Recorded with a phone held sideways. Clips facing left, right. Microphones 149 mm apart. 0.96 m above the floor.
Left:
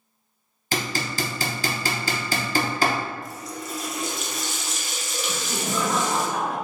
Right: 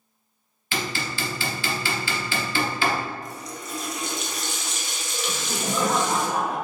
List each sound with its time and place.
0.7 s hammering: 40° left (ahead or behind), 0.7 m
3.2 s a running tap: centre (ahead or behind), 0.7 m
5.3 s laughter: 35° right (ahead or behind), 1.7 m